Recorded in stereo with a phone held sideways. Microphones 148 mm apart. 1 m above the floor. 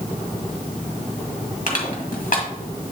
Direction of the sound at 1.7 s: 65° left (ahead or behind).